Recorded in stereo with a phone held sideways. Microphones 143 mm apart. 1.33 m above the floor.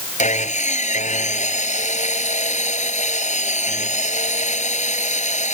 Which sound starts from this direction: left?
Sawing, at 0.2 s.